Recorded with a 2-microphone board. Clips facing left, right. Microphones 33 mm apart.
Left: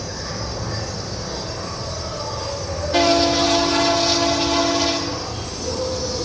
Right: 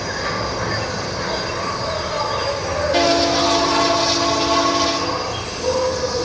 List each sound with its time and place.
0.0 s an insect: 60° right (ahead or behind), 1.0 m